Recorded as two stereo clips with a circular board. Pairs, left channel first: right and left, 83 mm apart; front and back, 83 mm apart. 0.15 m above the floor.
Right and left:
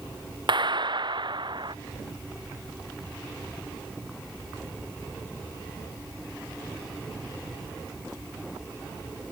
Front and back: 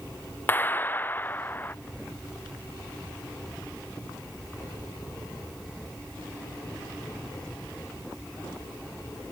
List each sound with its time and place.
0.5 s a clap: 65° left